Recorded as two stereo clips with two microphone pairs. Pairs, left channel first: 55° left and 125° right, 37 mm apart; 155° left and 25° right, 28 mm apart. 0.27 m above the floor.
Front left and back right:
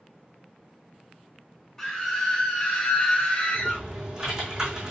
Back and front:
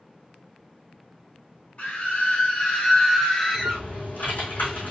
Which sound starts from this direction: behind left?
A scream, at 1.8 s.